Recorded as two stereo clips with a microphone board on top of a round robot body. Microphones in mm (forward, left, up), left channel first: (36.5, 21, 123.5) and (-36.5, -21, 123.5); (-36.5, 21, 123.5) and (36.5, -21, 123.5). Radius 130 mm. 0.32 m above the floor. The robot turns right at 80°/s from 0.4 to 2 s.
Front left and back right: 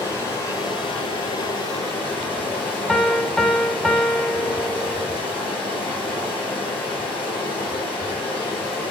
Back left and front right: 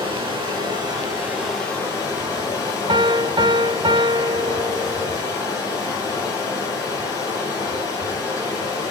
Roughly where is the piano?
Ahead right.